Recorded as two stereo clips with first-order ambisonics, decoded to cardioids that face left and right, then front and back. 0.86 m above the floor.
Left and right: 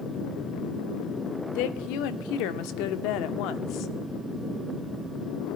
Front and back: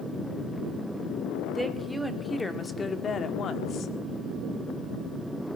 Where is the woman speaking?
95° left, 2 m; by 3.9 s 50° left, 1.5 m.